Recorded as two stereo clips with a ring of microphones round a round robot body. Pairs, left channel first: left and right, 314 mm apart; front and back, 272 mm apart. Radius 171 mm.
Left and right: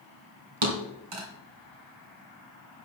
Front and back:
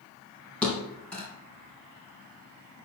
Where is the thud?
85° right, 2.5 m.